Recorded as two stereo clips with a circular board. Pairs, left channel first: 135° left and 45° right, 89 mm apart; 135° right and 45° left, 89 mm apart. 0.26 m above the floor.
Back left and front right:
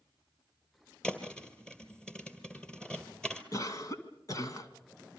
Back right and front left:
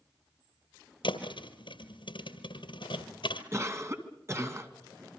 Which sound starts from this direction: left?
A cough, at 3.5 s.